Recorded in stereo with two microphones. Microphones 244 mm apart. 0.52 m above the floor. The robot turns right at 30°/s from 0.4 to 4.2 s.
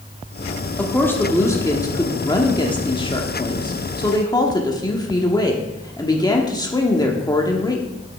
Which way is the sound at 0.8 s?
5° left (ahead or behind).